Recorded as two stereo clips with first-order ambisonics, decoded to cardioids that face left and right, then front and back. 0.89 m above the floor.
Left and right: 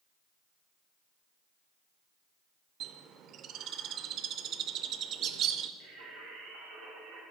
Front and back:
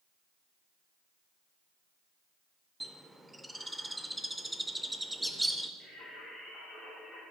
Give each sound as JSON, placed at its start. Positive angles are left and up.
{"t": 2.8, "sound": "a bird", "azimuth_deg": -95, "distance_m": 0.6}
{"t": 5.8, "sound": "singing", "azimuth_deg": -95, "distance_m": 5.0}